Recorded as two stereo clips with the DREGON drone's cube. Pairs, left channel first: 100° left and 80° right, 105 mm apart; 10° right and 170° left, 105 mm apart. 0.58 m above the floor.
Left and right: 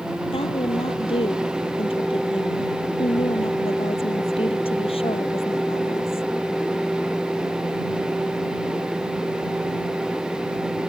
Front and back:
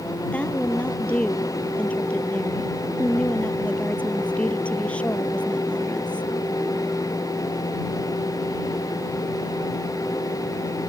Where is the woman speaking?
70° left.